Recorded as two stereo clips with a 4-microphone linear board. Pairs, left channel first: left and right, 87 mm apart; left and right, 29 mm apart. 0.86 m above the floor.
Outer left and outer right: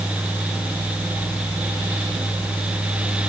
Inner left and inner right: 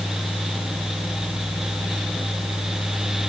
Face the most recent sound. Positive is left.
No sound to turn to.